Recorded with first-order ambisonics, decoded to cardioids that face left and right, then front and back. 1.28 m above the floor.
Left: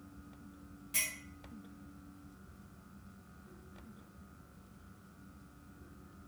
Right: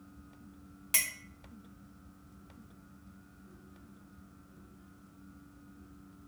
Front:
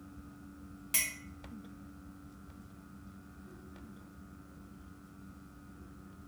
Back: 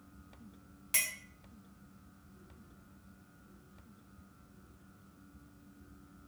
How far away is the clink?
About 0.5 m.